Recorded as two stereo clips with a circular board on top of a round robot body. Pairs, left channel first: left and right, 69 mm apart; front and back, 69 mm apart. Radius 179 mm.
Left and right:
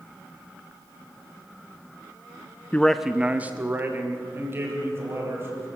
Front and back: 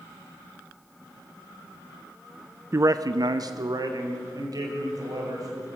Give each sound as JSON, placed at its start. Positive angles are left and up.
{"t": 2.7, "sound": "a man speaking", "azimuth_deg": 145, "distance_m": 0.7}